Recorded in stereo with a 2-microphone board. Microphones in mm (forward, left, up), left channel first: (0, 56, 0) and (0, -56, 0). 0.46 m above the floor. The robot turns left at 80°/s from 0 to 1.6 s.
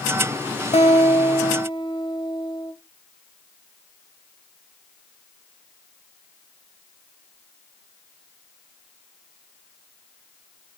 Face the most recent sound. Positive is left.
turn(degrees=45)